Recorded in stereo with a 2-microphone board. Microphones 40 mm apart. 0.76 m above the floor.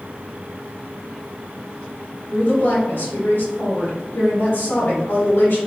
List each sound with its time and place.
2.3 s a woman speaking: 65° left (ahead or behind), 1.5 m